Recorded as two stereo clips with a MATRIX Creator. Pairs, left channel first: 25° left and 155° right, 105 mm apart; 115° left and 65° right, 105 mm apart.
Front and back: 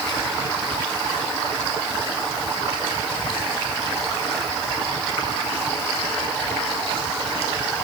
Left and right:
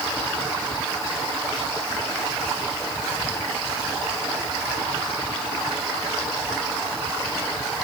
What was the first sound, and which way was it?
Only background noise.